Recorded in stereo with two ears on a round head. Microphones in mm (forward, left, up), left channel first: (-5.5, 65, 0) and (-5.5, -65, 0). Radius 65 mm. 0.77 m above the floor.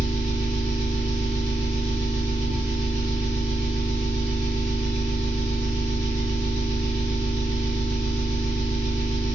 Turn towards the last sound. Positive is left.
turn(degrees=-60)  # may be behind; listen again after turning